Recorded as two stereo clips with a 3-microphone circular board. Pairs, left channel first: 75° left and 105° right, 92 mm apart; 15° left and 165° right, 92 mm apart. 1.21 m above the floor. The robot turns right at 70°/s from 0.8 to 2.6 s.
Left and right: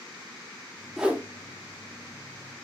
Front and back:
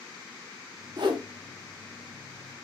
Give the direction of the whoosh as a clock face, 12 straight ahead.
6 o'clock.